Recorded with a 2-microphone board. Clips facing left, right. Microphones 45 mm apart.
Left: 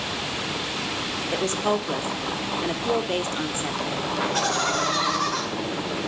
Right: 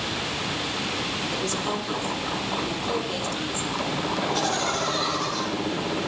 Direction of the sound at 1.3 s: 35° left (ahead or behind).